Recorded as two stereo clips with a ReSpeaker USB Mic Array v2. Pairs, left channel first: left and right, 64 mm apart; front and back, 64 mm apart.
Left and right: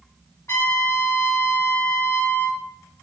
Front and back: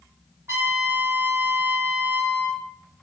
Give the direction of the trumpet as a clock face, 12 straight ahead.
8 o'clock.